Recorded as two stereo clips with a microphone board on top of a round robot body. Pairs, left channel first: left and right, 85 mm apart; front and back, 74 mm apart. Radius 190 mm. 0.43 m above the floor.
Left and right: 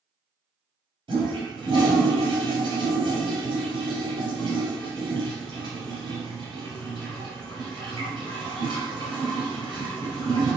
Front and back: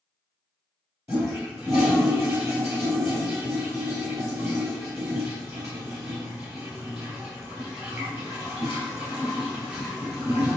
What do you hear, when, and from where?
1.1 s a toilet flushing: 125° right, 3 m